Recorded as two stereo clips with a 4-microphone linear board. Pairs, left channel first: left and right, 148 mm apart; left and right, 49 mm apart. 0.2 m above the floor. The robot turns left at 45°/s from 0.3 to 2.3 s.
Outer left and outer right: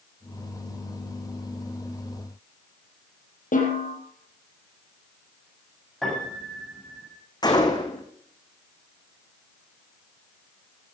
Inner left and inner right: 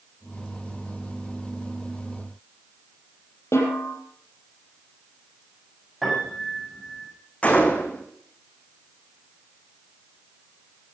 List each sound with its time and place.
3.5 s a snare drum: 65° left (ahead or behind), 5.5 m
6.0 s a piano: centre (ahead or behind), 9 m
7.4 s a gunshot: 30° left (ahead or behind), 2.5 m